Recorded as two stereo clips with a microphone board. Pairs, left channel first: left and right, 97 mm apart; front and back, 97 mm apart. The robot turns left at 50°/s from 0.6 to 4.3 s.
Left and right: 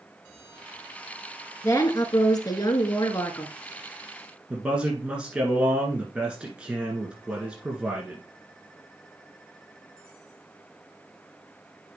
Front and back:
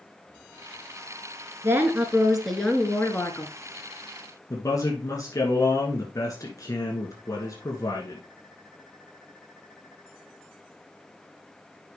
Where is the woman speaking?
130° left, 1.4 m; by 3.5 s 35° left, 1.4 m.